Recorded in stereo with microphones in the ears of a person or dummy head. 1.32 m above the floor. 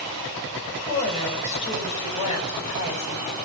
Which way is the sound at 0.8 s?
35° left (ahead or behind).